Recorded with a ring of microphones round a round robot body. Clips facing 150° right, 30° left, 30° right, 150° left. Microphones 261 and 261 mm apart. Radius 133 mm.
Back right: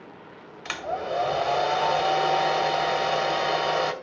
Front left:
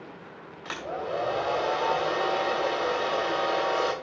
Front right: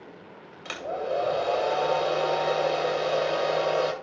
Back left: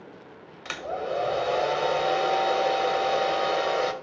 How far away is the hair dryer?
About 2.5 m.